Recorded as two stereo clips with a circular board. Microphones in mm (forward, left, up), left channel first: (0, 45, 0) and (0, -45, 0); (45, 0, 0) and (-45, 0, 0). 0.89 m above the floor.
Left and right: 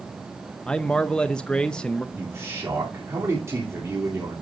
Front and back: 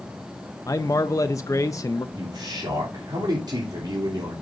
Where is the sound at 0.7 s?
15° left, 0.6 m.